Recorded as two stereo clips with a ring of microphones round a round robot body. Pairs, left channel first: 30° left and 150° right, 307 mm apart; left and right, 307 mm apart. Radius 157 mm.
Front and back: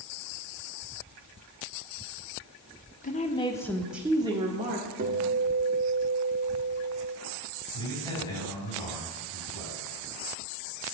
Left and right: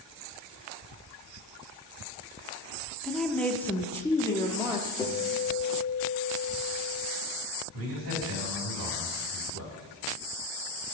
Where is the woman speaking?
5° left, 0.8 m; by 4.9 s 165° left, 1.0 m.